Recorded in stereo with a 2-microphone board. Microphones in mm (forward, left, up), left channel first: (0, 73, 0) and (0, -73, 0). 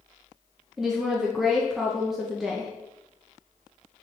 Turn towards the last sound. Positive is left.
turn(degrees=0)  # may be behind; listen again after turning